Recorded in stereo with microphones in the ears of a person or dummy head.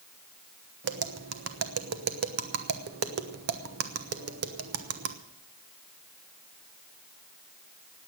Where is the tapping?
55° right (ahead or behind), 1.1 m.